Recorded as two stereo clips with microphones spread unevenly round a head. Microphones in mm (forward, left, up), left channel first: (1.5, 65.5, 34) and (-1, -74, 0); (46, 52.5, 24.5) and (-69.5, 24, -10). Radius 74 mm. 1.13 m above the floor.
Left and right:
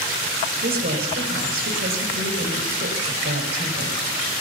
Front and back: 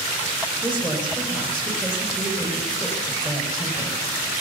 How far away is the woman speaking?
About 5 m.